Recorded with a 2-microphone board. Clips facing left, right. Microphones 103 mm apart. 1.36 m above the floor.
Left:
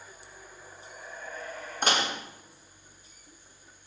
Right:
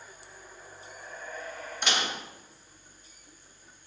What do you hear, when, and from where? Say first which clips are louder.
1.8 s dishes clattering: left 4 dB; 40° left (ahead or behind), 1.3 m